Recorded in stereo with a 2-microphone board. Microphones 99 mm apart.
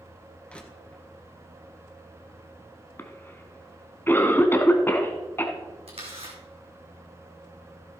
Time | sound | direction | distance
0.5 | crushing | 10° left (ahead or behind) | 1.9 m
3.0 | a cough | 25° left (ahead or behind) | 1.1 m
5.9 | a camera shutter | 80° right | 4.5 m